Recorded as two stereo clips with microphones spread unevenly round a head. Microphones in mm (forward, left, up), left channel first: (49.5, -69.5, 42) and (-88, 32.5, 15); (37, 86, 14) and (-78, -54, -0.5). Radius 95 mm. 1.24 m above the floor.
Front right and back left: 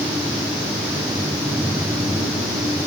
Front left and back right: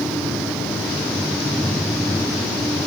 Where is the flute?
No flute in this recording.